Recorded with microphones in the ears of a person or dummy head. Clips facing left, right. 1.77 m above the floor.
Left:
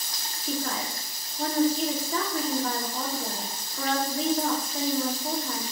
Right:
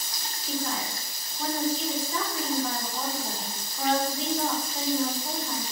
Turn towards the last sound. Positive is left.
turn(degrees=50)  # may be behind; listen again after turning